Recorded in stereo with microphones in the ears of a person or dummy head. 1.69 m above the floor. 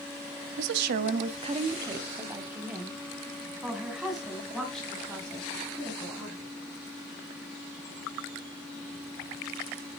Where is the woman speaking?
65° right (ahead or behind), 0.6 m; by 6.5 s 5° left (ahead or behind), 3.5 m.